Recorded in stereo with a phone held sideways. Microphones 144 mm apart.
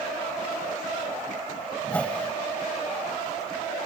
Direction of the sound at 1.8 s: 10° left (ahead or behind).